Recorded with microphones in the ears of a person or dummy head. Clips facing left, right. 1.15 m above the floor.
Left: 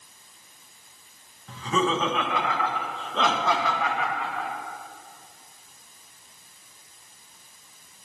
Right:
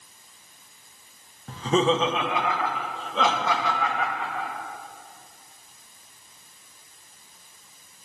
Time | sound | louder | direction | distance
1.5 | laughter | right 4 dB | 35° right (ahead or behind) | 0.6 m